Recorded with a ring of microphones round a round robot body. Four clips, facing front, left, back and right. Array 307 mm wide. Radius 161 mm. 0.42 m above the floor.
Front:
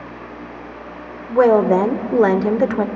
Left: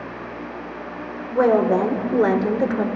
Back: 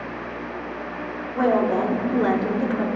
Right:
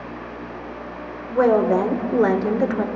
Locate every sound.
1.3 s a woman speaking: straight ahead, 1.6 m